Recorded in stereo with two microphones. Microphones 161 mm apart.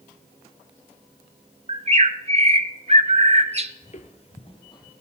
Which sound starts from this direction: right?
A bird, at 1.7 s.